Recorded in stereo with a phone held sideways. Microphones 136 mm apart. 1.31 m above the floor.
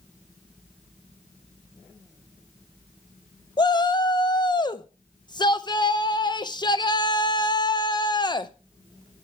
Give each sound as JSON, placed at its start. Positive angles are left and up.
{"t": 3.6, "sound": "a shout", "side_deg": 30, "distance_m": 0.7}